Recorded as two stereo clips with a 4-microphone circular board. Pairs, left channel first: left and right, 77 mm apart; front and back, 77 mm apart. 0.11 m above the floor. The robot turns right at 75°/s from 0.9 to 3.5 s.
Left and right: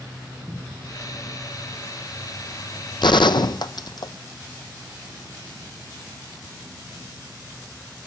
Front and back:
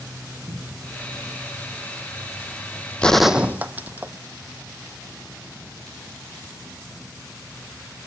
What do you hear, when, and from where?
0.5 s a cupboard door: 160° right, 3 m
3.0 s a gunshot: 75° left, 0.6 m; by 4.1 s 110° left, 0.6 m